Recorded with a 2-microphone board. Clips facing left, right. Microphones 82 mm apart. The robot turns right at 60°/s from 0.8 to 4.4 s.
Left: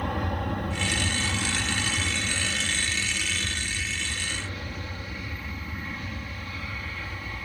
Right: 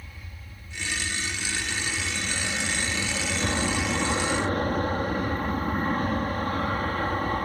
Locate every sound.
0.0 s an aircraft: 90° left; by 7.5 s 55° right